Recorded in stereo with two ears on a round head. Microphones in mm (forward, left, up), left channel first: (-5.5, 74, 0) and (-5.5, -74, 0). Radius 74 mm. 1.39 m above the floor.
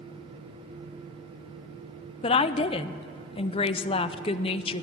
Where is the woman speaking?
35° left (ahead or behind), 0.5 m.